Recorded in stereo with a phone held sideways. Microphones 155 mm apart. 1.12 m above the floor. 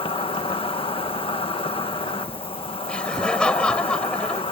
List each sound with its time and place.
0.0 s an insect: 35° left (ahead or behind)
2.9 s laughter: 5° left (ahead or behind)